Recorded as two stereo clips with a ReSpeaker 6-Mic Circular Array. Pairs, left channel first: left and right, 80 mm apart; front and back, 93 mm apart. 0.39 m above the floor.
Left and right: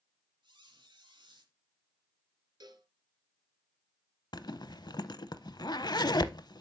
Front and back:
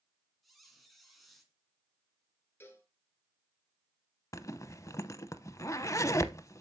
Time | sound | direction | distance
0.4 | a squeak | 90° right | 2 m
2.6 | a cowbell | 65° right | 1.2 m
4.3 | a zipper | 55° left | 0.6 m